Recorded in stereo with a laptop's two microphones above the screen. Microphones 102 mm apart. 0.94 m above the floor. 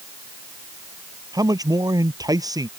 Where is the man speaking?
35° right (ahead or behind).